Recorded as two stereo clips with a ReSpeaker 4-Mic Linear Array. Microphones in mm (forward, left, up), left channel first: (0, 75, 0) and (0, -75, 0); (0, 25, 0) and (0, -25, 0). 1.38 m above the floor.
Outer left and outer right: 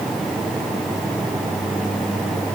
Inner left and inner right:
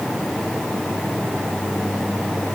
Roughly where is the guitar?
No guitar in this recording.